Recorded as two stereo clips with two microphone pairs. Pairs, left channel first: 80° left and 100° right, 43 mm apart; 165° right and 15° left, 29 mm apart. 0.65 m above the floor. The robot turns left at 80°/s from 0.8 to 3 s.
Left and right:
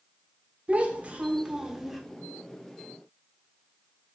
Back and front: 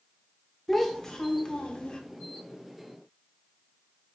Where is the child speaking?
95° right, 0.6 m; by 2.0 s 170° left, 0.6 m.